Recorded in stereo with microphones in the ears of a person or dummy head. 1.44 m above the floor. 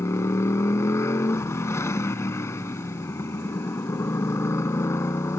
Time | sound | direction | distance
0.0 | a motorcycle | 15° left (ahead or behind) | ?